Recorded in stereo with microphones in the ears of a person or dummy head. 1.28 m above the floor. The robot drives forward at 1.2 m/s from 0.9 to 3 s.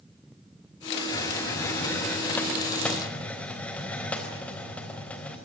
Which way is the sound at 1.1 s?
15° left (ahead or behind).